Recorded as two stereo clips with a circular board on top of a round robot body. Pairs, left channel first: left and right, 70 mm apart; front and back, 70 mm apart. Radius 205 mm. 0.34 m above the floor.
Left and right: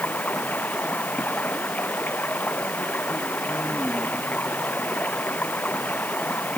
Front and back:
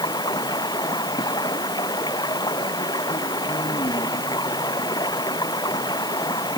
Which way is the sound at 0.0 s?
20° left.